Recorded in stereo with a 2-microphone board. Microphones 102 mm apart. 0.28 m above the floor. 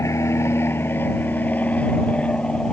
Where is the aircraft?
25° left (ahead or behind); by 2.7 s 5° left (ahead or behind).